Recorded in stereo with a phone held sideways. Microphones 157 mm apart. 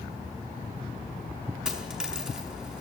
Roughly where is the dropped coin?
Centre.